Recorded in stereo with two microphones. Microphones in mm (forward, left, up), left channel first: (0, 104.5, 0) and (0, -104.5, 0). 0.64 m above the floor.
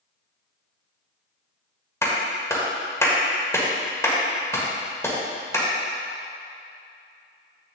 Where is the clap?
15° left (ahead or behind), 1.6 m.